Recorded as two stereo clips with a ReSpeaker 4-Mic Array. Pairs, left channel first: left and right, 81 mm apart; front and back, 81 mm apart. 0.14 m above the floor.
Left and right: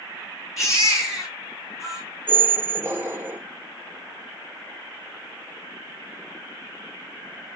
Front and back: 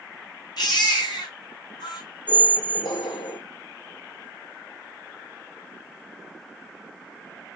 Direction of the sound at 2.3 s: 25° right.